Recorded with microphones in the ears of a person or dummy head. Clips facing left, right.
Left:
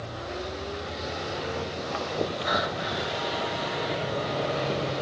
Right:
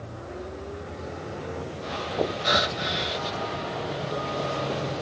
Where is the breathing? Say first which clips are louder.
Right 2 dB; 35° right (ahead or behind).